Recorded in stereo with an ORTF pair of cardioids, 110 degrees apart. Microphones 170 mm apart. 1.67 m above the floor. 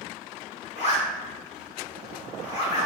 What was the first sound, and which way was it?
A zipper, 40° left.